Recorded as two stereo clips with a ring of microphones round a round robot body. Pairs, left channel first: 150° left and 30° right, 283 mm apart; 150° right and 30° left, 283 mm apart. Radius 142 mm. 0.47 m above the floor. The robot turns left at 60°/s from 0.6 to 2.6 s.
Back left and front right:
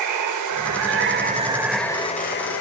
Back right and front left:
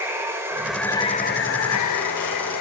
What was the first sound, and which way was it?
Running water, 50° right.